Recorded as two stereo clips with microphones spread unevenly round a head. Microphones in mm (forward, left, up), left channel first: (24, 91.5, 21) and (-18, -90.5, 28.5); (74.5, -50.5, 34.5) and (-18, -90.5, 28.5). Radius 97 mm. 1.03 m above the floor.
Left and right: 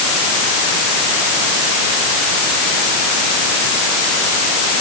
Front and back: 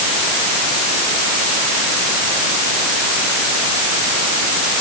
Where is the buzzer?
No buzzer in this recording.